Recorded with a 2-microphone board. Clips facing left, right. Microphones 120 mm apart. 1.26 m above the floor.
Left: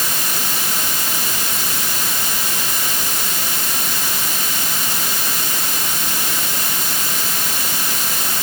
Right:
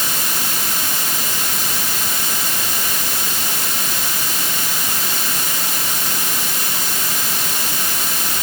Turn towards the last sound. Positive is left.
No sound to turn to.